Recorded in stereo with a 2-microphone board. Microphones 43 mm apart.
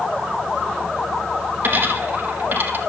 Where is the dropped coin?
50° right (ahead or behind), 4 m.